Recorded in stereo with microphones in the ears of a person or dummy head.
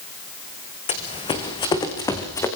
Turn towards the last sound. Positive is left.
turn(degrees=15)  # may be behind; listen again after turning